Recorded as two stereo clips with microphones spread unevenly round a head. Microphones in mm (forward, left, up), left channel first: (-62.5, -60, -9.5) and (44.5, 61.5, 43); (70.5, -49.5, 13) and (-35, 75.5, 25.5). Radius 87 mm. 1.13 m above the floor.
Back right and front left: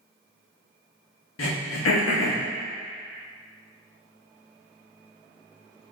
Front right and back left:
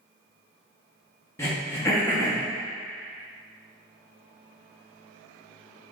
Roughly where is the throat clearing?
Behind right.